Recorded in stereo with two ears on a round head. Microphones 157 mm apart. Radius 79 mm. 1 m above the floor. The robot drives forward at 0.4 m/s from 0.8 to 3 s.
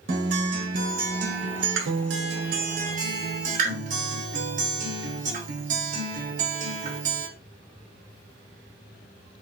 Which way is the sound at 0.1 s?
50° right (ahead or behind).